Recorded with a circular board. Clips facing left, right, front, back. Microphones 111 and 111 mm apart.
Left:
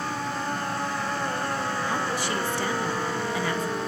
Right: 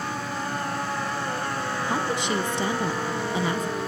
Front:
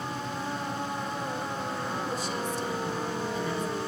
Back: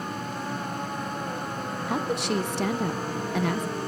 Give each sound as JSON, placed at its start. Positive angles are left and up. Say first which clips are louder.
{"t": 1.9, "sound": "a woman speaking", "louder": "right 2 dB, back 5 dB", "azimuth_deg": -160, "distance_m": 0.6}